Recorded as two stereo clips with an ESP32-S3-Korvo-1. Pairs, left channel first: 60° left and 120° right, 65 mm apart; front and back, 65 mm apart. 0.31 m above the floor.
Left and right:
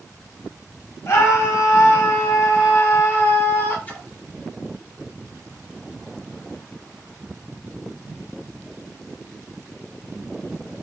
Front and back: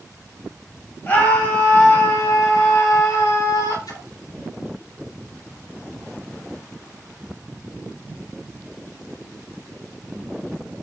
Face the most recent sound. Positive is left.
turn(degrees=-5)